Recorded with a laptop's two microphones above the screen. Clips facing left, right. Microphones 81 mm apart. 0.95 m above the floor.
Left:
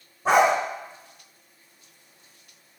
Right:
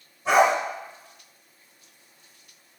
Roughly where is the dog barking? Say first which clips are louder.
Even; left.